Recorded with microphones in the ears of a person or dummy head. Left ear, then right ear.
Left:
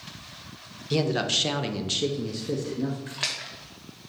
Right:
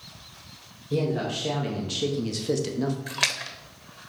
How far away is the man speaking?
About 1.0 m.